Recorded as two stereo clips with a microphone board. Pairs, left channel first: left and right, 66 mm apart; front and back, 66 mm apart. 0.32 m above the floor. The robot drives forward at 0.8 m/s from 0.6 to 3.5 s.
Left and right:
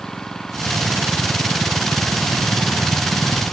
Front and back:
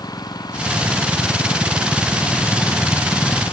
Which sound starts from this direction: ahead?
An engine running, at 0.0 s.